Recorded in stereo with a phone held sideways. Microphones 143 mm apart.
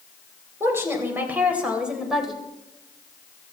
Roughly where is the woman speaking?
Centre.